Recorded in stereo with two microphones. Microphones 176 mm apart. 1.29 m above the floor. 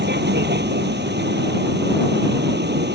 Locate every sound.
0.0 s a vehicle: 75° right (ahead or behind)